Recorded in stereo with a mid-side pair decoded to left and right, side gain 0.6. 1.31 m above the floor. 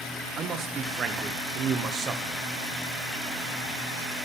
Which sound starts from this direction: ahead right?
A man speaking, at 0.4 s.